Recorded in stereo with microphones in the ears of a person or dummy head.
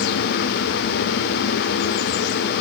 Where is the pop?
I don't hear a pop.